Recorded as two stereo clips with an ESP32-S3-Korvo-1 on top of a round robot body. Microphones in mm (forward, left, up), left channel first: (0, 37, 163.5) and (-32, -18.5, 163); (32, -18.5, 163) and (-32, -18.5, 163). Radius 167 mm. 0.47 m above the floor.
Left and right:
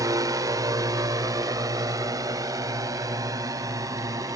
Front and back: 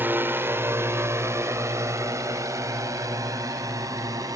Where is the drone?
125° right; by 4.4 s 150° right.